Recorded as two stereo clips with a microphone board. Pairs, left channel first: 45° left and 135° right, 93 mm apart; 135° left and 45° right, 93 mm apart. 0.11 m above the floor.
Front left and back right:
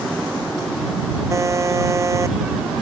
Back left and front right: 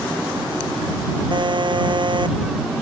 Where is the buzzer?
80° right.